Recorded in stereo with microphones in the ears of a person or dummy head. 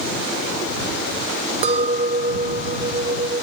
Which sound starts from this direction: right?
A clink, at 1.6 s.